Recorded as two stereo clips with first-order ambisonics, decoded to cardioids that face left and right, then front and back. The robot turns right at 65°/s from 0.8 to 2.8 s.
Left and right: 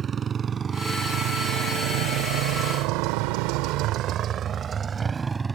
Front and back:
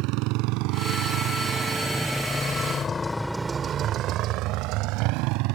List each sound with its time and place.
0.0 s a motorcycle: 155° right; by 5.5 s 165° right